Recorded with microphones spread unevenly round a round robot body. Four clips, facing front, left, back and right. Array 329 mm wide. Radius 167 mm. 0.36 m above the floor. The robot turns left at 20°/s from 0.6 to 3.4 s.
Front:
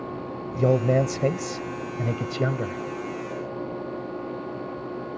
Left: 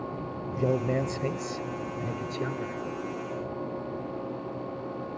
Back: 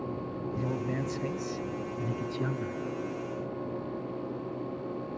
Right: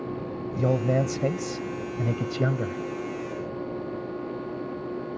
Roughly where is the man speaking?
Ahead.